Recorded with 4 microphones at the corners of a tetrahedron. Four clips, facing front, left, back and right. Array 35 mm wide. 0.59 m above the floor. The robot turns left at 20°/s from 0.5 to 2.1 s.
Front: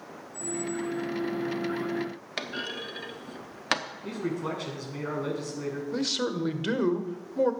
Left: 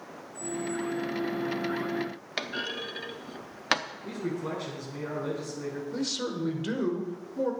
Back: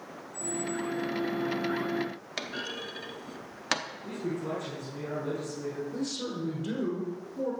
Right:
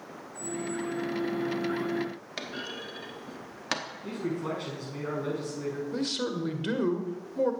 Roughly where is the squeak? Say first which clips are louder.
Left 1 dB, front 1 dB; ahead.